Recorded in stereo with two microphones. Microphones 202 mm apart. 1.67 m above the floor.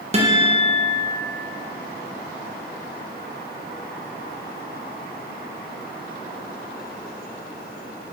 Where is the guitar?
30° right (ahead or behind), 0.9 m.